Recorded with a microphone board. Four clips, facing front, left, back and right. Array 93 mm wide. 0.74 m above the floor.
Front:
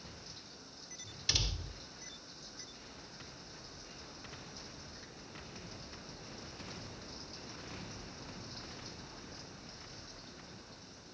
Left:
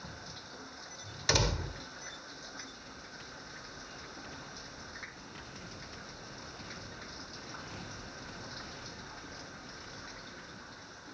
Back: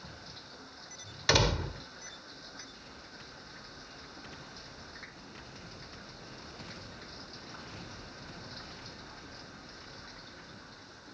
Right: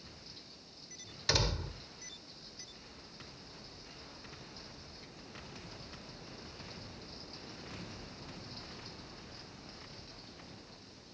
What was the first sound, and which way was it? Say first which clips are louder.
Running water: left 8 dB, back 4 dB; 110° left.